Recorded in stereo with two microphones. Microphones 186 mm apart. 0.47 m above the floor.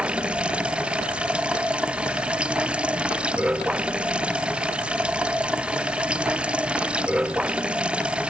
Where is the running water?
5° right (ahead or behind).